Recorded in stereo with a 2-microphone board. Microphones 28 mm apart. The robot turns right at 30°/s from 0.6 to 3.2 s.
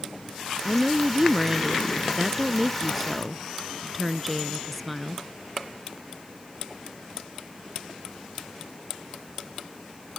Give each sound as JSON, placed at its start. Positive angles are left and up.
{"t": 0.7, "sound": "a woman speaking", "side_deg": -25}